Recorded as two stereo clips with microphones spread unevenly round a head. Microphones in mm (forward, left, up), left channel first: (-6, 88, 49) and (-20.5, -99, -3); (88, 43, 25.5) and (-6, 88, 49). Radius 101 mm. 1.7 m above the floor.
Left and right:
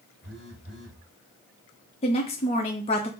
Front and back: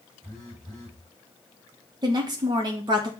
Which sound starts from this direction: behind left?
A woman speaking, at 2.0 s.